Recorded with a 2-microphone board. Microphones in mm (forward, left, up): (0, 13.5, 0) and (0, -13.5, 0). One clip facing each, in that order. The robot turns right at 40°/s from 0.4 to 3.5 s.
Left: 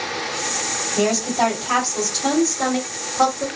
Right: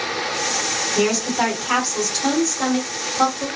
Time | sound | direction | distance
0.9 | a woman speaking | 60° right | 1.6 m